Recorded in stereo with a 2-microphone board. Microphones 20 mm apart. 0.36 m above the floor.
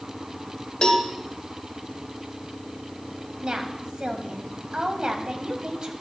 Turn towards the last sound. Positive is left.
turn(degrees=-60)  # may be behind; listen again after turning